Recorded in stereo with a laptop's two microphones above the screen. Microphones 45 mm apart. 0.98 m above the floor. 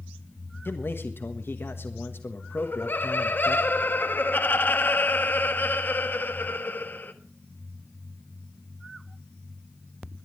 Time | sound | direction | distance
0.7 | a man speaking | 55° left (ahead or behind) | 1.4 m
2.6 | laughter | 50° left (ahead or behind) | 1.2 m